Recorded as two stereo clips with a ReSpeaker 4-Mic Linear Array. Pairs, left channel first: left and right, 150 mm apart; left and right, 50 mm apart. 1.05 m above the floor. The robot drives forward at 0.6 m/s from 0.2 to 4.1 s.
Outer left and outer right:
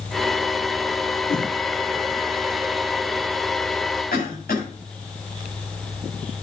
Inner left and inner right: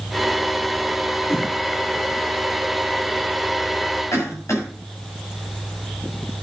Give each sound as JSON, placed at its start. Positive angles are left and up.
{"t": 1.3, "sound": "a whoosh", "side_deg": 60, "distance_m": 5.0}
{"t": 4.1, "sound": "a cough", "side_deg": 85, "distance_m": 7.5}